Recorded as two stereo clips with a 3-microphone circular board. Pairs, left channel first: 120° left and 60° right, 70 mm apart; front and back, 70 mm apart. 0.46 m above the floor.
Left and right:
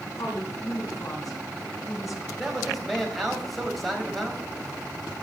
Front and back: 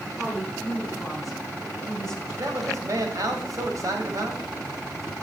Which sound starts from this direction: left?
A woman speaking, at 0.2 s.